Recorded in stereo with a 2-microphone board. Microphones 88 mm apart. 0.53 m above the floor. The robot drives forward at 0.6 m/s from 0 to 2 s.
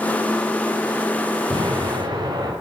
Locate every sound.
1.5 s an explosion: 70° right (ahead or behind), 9.5 m